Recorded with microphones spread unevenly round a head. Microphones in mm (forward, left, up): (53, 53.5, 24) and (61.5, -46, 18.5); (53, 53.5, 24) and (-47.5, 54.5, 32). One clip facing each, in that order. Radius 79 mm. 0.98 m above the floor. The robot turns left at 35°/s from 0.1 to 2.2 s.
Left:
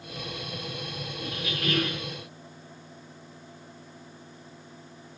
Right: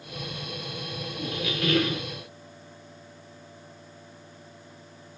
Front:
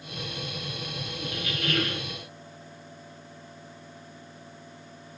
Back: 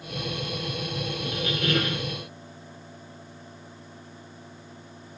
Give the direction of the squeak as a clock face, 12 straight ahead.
3 o'clock.